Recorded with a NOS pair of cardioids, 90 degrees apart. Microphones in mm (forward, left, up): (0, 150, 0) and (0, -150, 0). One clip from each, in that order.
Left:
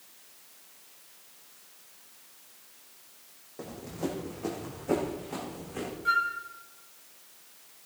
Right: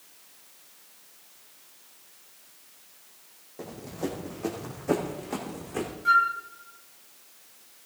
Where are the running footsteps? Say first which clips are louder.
Right 1 dB; 5° left, 3 m; by 6.0 s 50° right, 4.5 m.